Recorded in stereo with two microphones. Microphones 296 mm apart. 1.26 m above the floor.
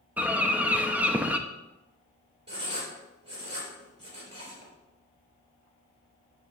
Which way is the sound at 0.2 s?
5° right (ahead or behind).